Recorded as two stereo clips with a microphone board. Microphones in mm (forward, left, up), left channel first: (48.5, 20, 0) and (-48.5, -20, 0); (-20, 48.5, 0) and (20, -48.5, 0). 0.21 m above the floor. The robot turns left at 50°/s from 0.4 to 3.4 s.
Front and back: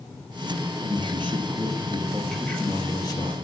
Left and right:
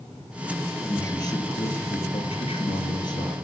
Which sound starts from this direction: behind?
A man speaking, at 0.8 s.